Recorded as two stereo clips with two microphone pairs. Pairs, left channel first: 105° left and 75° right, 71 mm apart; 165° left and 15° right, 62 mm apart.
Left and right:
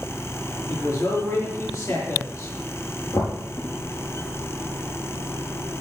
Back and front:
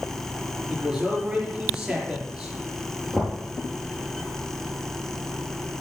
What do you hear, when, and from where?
0.7 s a man speaking: 65° left, 5 m
3.1 s knocking: 75° left, 5 m